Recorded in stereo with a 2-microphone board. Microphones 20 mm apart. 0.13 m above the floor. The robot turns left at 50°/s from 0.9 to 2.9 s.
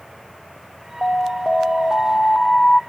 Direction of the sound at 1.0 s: 105° left.